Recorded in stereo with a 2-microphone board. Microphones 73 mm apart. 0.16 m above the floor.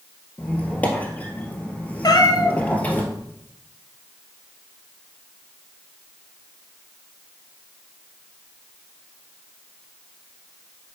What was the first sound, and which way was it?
A squeak, 20° left (ahead or behind).